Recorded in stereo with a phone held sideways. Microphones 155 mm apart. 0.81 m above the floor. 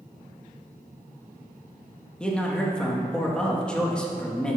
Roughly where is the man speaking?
Centre.